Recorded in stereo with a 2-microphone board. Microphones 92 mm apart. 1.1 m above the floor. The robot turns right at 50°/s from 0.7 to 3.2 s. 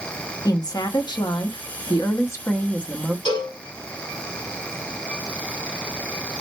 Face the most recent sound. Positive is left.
turn(degrees=75)  # may be behind; listen again after turning